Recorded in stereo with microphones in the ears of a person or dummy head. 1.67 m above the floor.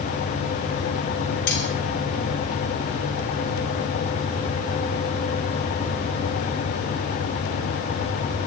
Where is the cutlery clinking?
65° left (ahead or behind), 3.5 m.